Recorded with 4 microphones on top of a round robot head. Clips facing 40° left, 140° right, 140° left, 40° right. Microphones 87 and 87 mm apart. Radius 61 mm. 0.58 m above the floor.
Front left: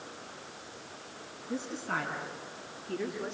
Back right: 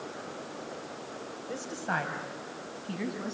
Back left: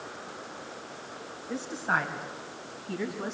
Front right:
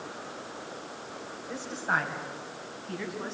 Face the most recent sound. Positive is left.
turn(degrees=-140)